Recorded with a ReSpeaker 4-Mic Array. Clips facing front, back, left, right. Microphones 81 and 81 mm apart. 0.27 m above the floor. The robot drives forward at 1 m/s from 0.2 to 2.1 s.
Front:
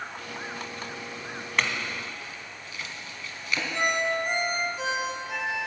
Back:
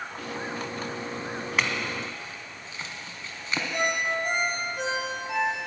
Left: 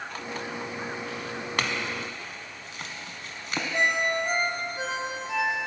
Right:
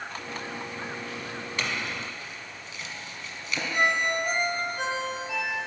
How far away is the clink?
About 1.0 m.